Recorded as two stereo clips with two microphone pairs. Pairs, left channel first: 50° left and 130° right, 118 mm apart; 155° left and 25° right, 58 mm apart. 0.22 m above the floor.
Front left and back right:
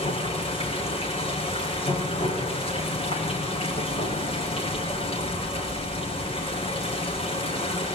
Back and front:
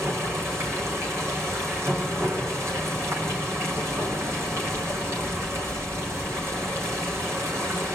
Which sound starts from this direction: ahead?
Running water, at 0.0 s.